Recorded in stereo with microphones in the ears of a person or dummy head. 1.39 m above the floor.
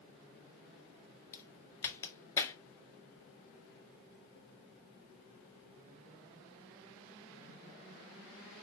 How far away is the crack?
About 2 m.